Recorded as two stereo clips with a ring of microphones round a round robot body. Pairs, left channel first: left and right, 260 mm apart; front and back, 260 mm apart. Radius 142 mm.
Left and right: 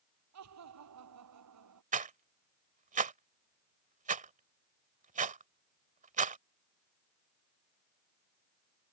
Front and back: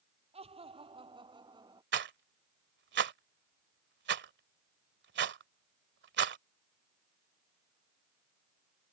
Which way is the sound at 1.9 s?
145° right.